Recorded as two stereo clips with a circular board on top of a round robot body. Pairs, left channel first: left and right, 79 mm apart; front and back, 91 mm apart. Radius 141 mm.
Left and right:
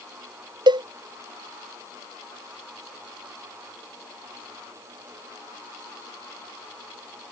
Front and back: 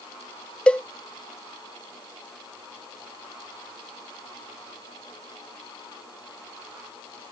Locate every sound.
0.7 s a cowbell: 80° right